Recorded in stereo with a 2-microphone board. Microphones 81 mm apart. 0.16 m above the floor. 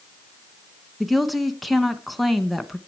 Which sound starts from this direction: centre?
A woman speaking, at 1.0 s.